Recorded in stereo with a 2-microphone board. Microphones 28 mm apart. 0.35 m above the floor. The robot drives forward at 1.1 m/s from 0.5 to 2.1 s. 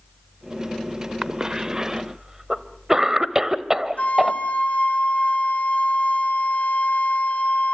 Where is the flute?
60° left (ahead or behind), 2.5 m.